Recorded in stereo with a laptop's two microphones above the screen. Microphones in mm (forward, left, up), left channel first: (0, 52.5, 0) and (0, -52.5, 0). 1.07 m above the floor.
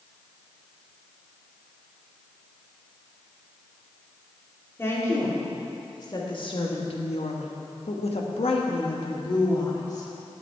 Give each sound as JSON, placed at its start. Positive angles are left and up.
{"t": 4.8, "sound": "a woman speaking", "side_deg": 25, "distance_m": 2.5}